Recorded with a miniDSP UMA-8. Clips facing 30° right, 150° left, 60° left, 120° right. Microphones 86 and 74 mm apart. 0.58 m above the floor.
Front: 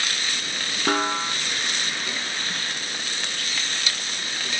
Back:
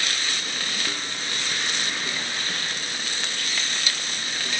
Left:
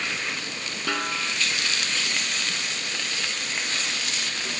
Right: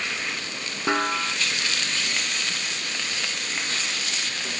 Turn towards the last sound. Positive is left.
turn(degrees=-55)